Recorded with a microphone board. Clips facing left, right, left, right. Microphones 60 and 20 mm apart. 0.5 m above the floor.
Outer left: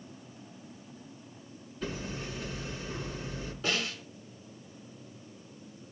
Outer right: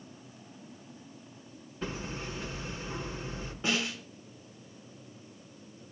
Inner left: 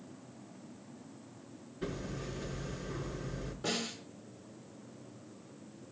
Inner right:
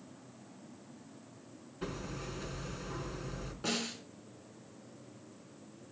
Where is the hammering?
40° right (ahead or behind), 4 m.